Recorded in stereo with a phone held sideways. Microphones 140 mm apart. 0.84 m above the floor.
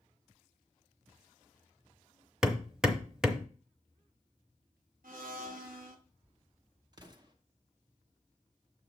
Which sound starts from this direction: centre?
Hammering, at 2.4 s.